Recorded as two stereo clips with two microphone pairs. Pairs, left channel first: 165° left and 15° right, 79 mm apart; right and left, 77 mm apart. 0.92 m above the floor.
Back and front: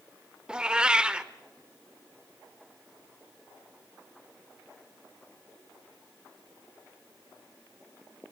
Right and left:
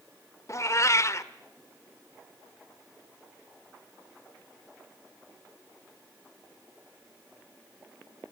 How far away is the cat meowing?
About 0.6 m.